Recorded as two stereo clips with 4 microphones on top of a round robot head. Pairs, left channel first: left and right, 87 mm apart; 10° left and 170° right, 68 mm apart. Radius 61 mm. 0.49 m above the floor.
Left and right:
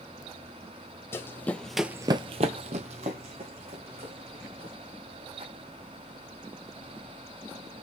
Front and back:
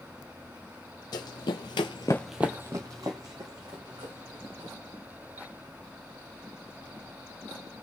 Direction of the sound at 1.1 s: 30° left.